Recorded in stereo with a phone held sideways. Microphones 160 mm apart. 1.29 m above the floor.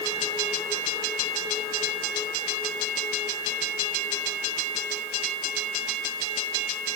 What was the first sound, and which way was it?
Only background noise.